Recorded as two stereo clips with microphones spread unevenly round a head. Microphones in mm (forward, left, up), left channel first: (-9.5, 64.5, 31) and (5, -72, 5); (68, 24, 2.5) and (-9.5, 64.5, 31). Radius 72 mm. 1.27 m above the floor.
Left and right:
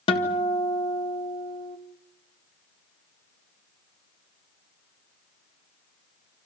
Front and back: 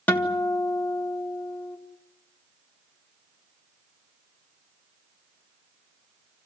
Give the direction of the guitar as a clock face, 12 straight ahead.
11 o'clock.